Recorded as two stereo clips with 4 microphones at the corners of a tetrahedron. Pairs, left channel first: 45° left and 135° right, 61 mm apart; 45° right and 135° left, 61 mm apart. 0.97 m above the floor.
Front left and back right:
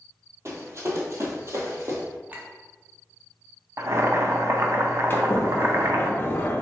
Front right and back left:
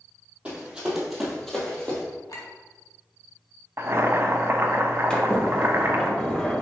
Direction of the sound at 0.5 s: 160° right.